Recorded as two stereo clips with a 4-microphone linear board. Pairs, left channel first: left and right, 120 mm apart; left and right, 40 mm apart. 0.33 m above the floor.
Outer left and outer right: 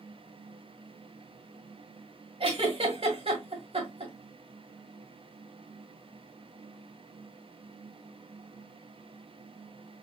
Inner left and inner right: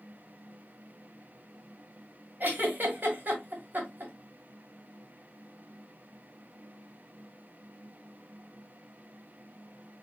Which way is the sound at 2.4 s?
45° right (ahead or behind).